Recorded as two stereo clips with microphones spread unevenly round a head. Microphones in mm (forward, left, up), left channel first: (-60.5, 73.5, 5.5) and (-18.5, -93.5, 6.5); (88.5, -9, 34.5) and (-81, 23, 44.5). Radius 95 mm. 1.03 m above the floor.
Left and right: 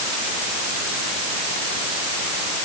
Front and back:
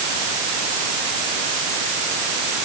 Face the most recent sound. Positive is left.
No sound to turn to.